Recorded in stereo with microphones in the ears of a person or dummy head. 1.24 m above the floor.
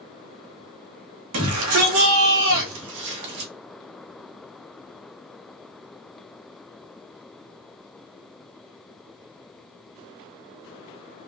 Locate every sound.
1.3 s a shout: 75° right (ahead or behind), 2 m; by 3.5 s 50° right (ahead or behind), 1.7 m